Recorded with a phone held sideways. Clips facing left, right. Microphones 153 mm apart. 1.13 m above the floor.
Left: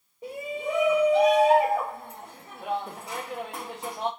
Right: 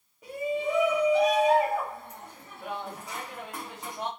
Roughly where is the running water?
I don't hear running water.